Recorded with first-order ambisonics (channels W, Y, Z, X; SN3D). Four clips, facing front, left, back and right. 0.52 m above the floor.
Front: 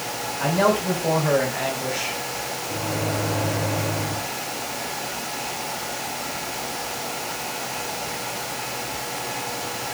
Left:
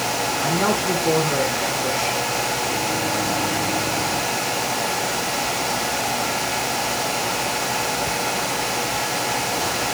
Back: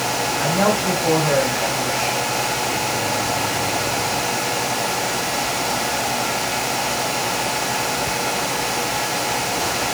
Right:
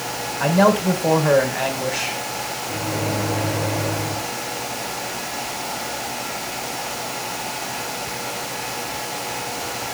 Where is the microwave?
65° right, 1.6 m.